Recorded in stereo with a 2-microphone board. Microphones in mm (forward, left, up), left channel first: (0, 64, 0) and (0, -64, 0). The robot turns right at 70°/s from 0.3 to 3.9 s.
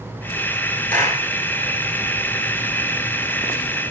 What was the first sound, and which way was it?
A clap, 10° left (ahead or behind).